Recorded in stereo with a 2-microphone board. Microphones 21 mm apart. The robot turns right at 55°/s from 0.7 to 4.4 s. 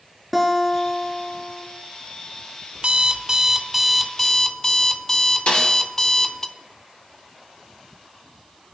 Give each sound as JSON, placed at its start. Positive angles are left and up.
{"t": 0.3, "sound": "a guitar", "azimuth_deg": -10, "distance_m": 2.0}
{"t": 2.8, "sound": "an alarm clock", "azimuth_deg": -70, "distance_m": 0.7}
{"t": 5.5, "sound": "a snare drum", "side_deg": 60, "distance_m": 6.5}